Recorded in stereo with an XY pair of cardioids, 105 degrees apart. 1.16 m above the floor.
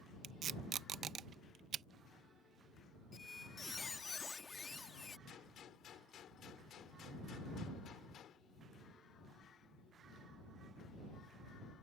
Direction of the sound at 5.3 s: 60° left.